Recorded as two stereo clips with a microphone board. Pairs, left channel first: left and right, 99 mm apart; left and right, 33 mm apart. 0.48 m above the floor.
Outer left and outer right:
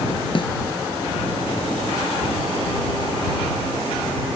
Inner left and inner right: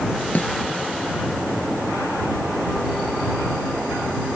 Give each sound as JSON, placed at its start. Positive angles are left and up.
{"t": 0.3, "sound": "a snare drum", "side_deg": 55}